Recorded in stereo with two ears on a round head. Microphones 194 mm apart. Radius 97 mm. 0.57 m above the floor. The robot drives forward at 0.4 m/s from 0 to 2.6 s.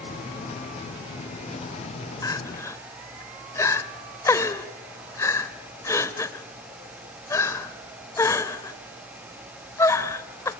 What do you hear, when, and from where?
2.2 s crying: 15° left (ahead or behind), 0.8 m